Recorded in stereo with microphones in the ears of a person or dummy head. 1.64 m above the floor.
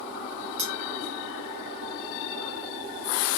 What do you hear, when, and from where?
0.6 s cutlery clinking: 25° right (ahead or behind), 1.4 m